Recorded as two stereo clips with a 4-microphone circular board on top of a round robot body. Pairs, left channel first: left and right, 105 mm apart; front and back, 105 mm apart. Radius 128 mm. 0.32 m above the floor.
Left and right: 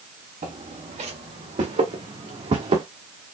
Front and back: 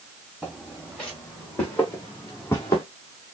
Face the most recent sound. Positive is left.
turn(degrees=-60)